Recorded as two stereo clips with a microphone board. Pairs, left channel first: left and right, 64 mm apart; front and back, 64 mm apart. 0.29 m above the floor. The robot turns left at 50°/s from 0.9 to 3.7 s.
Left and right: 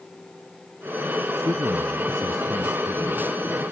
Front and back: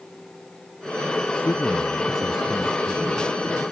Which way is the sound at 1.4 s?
50° right.